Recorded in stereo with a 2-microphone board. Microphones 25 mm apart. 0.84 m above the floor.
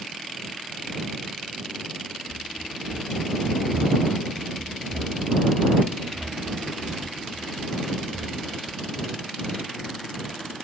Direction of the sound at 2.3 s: 30° right (ahead or behind).